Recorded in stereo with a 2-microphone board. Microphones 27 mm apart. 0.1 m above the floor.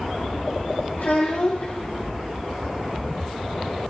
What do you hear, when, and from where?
1.0 s a child speaking: 70° left (ahead or behind), 2.5 m